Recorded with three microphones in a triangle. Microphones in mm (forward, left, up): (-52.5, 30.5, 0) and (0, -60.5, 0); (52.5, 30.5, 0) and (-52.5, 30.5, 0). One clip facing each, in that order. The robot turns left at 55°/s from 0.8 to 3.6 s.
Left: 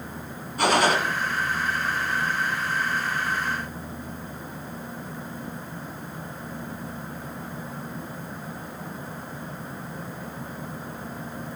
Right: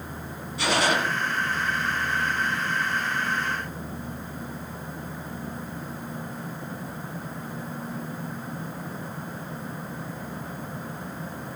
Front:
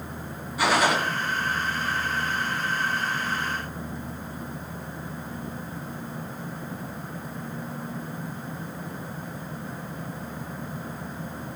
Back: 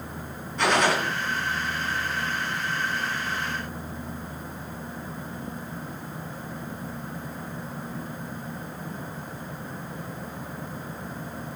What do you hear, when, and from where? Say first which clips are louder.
0.6 s a gunshot: left 3 dB, even; 80° left, 2.5 m; by 1.0 s 70° left, 2.5 m